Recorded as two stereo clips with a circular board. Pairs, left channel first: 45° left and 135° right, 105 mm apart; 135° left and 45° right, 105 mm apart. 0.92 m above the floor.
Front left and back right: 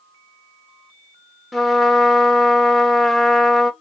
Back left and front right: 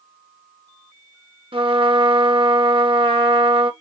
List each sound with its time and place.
1.5 s a trumpet: 45° right, 0.9 m